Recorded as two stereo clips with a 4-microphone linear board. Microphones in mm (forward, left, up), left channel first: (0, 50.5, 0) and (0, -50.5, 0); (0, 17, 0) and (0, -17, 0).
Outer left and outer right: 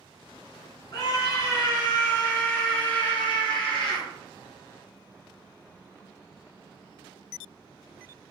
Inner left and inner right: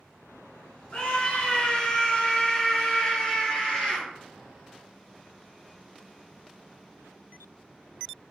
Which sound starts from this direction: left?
A scream, at 0.9 s.